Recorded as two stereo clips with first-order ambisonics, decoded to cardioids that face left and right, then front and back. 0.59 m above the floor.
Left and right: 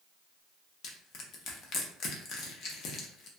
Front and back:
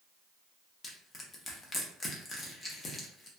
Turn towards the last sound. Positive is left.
turn(degrees=65)